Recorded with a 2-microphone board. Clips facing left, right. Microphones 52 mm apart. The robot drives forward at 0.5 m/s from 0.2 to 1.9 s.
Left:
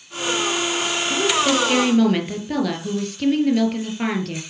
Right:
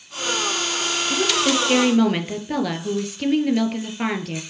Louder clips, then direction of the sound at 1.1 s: Left 2 dB; 5° right (ahead or behind).